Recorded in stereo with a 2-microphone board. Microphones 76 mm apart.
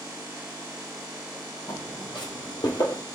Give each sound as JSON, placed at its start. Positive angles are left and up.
{"t": 1.7, "sound": "footsteps", "side_deg": 75, "distance_m": 3.0}